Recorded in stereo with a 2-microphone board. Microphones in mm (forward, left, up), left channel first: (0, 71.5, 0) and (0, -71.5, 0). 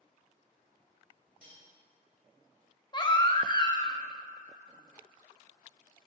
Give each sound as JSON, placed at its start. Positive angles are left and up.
{"t": 1.4, "sound": "cutlery clinking", "side_deg": -70, "distance_m": 2.5}
{"t": 2.9, "sound": "a baby crying", "side_deg": 30, "distance_m": 0.7}